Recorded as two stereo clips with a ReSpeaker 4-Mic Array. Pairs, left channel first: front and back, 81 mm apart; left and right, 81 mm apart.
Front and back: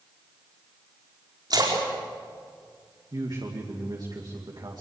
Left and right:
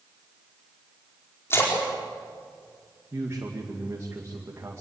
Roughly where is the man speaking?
Behind right.